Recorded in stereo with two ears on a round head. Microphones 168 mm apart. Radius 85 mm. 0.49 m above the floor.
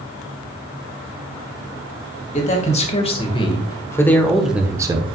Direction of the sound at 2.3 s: 40° left (ahead or behind).